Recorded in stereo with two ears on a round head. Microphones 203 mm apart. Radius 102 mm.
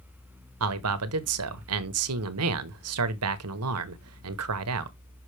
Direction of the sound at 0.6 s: 70° right (ahead or behind).